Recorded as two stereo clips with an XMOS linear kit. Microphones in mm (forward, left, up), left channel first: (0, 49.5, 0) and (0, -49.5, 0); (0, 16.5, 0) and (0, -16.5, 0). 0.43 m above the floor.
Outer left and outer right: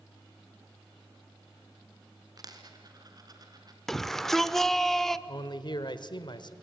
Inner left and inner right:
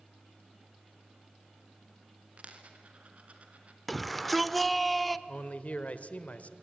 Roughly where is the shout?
Centre.